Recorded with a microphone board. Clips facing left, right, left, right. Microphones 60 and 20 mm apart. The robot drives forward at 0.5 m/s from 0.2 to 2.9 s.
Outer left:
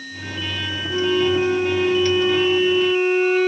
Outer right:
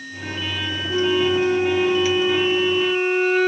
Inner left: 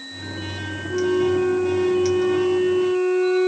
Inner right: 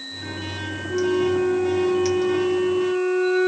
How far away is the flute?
About 0.6 m.